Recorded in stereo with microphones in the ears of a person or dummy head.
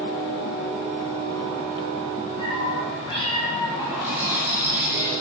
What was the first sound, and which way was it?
A cat meowing, 25° left (ahead or behind).